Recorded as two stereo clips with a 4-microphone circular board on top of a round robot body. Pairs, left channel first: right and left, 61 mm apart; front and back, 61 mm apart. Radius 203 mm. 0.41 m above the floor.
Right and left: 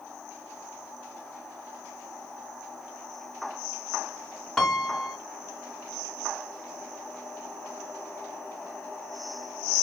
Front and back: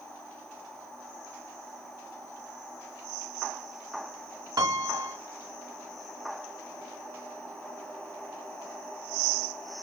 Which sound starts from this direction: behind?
A piano, at 4.6 s.